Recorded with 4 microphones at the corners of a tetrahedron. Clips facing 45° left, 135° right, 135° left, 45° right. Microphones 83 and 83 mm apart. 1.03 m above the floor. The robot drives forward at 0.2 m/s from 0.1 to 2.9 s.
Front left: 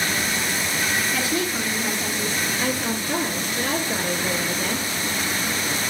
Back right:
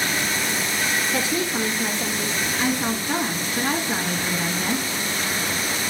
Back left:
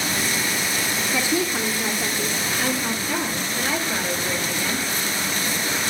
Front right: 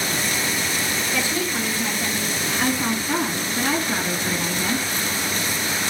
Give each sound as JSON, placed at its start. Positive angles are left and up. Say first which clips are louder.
{"t": 1.1, "sound": "a woman speaking", "louder": "back right 1 dB, back left 4 dB", "azimuth_deg": -170, "distance_m": 0.7}
{"t": 2.6, "sound": "a woman speaking", "louder": "back right 1 dB, front right 4 dB", "azimuth_deg": -105, "distance_m": 1.7}